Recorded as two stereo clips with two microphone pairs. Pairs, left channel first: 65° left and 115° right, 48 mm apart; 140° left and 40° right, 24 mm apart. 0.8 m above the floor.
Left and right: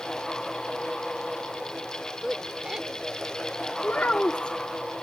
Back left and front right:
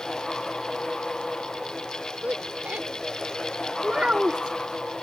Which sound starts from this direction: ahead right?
A woman speaking, at 2.2 s.